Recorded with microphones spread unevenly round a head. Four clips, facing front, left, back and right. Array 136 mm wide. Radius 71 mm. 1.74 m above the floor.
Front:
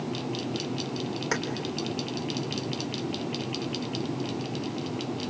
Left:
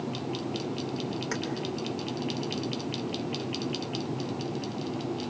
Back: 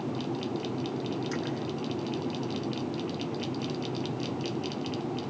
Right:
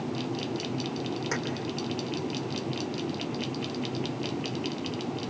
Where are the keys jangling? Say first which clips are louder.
Right 3 dB, front 3 dB; 5° right, 3.5 m.